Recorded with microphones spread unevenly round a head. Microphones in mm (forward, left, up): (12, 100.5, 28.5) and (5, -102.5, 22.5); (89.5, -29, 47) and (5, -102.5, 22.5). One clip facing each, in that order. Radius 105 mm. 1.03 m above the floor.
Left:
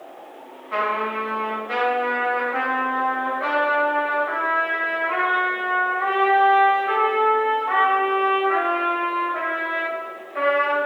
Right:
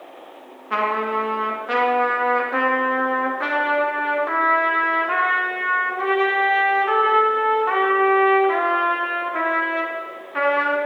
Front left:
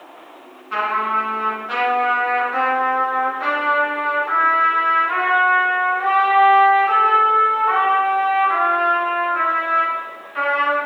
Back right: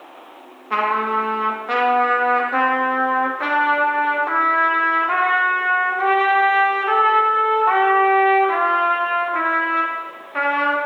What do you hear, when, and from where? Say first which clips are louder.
0.7 s a trumpet: right 2 dB, back right 1 dB; 115° right, 1.2 m